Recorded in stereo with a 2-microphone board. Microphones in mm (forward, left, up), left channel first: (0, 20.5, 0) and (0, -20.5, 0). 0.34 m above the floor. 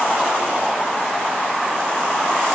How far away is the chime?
I don't hear a chime.